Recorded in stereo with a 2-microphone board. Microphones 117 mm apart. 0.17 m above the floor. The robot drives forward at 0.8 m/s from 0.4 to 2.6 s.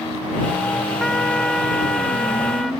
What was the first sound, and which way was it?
A trumpet, 5° left (ahead or behind).